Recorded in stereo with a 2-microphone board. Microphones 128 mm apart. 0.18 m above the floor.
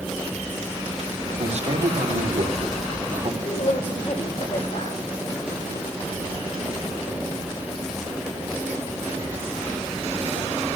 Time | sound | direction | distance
1.4 | a man speaking | 60° right (ahead or behind) | 6 m
3.4 | a woman speaking | 50° left (ahead or behind) | 10 m